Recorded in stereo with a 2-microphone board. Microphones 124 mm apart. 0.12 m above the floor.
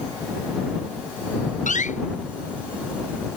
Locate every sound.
1.7 s a door slam: 80° left